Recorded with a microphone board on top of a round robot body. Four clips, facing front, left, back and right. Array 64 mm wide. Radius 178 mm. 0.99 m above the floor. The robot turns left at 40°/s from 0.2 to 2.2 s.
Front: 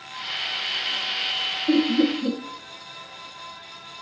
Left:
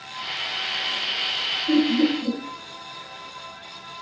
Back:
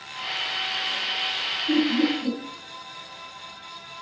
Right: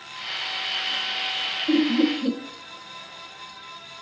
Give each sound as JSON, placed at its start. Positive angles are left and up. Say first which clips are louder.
{"t": 1.7, "sound": "laughter", "louder": "left 1 dB, front 2 dB", "azimuth_deg": -30, "distance_m": 1.4}